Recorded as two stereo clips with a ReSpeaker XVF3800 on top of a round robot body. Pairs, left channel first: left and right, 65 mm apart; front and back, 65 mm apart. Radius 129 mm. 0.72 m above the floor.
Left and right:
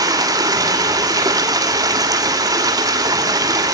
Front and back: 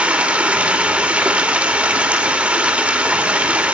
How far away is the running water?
About 2.5 m.